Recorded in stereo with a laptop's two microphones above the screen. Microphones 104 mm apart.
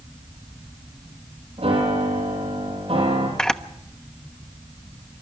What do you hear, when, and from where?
1.6 s a piano: 75° right (ahead or behind), 7 m
3.4 s a camera shutter: 5° left (ahead or behind), 1.0 m